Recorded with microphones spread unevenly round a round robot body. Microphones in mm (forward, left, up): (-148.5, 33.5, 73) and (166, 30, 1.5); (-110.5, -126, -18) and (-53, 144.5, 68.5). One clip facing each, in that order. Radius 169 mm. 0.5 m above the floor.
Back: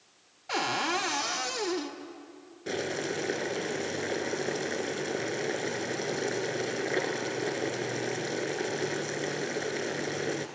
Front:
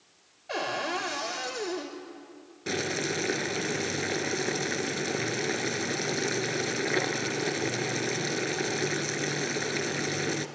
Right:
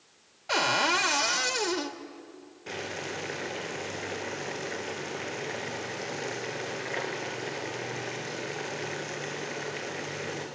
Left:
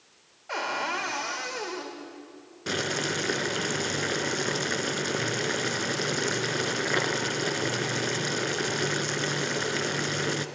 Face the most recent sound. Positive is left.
turn(degrees=70)